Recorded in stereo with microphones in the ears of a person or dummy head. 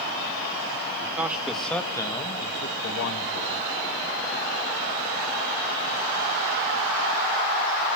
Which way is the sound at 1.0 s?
15° right (ahead or behind).